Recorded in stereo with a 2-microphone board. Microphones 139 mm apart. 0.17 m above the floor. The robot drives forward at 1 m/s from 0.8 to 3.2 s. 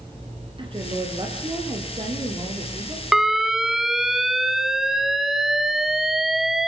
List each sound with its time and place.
0.6 s a woman speaking: 40° right (ahead or behind), 5.5 m; by 3.1 s 25° right (ahead or behind), 7 m
3.1 s an alarm: centre (ahead or behind), 0.9 m